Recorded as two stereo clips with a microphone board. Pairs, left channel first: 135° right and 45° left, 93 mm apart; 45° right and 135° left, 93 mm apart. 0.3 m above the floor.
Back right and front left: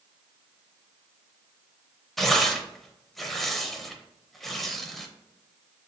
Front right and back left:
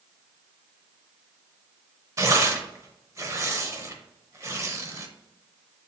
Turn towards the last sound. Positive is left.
turn(degrees=140)